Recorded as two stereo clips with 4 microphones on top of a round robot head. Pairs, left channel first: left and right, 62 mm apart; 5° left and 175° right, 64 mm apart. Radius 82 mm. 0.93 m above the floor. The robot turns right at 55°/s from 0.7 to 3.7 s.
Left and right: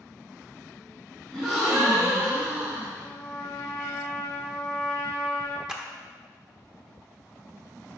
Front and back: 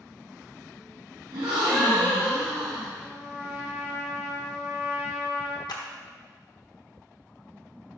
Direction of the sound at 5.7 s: 10° right.